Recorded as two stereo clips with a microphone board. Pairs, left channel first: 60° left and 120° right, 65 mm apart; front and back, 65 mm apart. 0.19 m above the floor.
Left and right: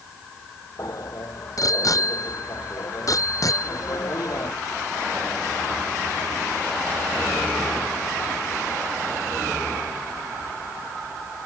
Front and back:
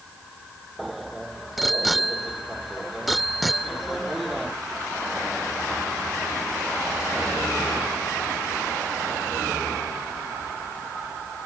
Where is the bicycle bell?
90° left.